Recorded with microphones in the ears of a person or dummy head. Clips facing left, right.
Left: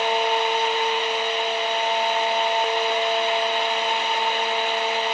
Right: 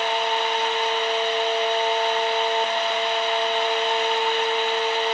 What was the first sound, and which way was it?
Only background noise.